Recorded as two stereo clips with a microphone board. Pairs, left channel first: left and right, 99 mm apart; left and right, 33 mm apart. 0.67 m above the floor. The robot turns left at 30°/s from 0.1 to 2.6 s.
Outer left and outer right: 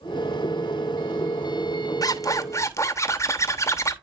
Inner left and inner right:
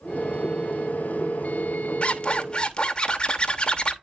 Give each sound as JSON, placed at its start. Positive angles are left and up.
{"t": 2.0, "sound": "a zipper", "side_deg": 35, "distance_m": 1.0}